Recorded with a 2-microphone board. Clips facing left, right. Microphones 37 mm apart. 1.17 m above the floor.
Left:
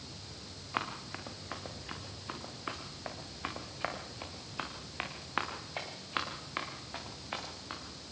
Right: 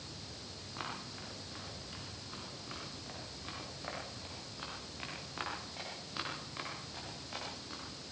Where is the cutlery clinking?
No cutlery clinking in this recording.